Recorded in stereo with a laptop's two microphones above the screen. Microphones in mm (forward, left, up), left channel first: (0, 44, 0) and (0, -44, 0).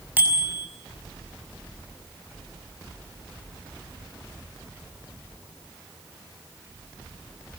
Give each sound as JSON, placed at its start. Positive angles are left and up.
{"t": 0.2, "sound": "a bicycle bell", "side_deg": -20, "distance_m": 5.5}